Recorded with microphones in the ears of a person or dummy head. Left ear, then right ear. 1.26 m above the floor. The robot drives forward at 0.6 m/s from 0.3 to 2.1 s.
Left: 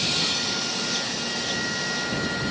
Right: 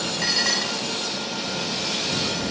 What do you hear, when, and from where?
0.2 s dishes clattering: 55° right (ahead or behind); by 0.9 s 60° right (ahead or behind)